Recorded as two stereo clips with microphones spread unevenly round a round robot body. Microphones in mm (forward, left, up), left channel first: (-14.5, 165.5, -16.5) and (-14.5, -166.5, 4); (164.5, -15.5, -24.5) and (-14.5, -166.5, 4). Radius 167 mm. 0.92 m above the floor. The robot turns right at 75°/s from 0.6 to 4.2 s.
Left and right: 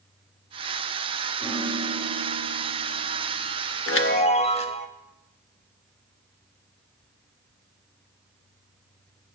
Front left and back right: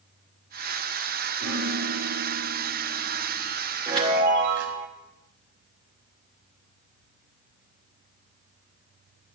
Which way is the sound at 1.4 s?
175° left.